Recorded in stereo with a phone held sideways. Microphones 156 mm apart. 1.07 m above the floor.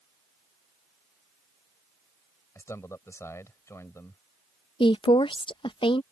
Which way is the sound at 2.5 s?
20° left (ahead or behind).